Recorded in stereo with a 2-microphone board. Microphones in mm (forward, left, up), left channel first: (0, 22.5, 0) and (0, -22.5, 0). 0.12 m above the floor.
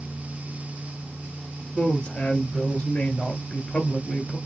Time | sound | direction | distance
1.8 | a woman speaking | 20° left (ahead or behind) | 1.6 m